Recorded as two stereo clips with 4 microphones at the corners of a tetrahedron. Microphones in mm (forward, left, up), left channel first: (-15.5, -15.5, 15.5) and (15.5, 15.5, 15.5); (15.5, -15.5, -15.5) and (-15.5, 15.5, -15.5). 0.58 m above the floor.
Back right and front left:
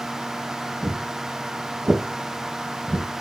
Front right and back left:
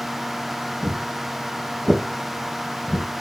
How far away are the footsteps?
About 0.9 m.